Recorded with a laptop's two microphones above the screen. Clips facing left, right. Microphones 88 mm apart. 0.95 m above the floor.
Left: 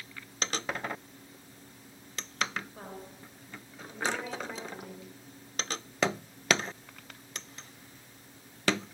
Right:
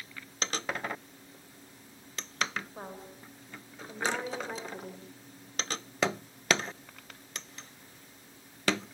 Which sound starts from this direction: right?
A woman speaking, at 2.8 s.